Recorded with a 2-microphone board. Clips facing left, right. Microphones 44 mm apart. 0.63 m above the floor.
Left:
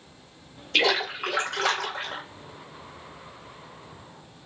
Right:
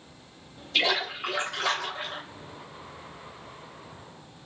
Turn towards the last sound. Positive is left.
turn(degrees=60)  # may be behind; listen again after turning